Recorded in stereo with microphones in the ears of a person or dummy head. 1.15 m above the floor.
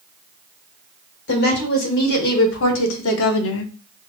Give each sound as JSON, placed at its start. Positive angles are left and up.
{"t": 1.3, "sound": "a woman speaking", "side_deg": 70, "distance_m": 2.0}